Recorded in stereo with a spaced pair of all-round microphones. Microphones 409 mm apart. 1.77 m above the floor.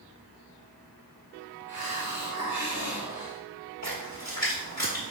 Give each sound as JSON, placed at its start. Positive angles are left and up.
{"t": 1.7, "sound": "a hiss", "side_deg": 25, "distance_m": 1.4}
{"t": 3.8, "sound": "a splash", "side_deg": 40, "distance_m": 1.7}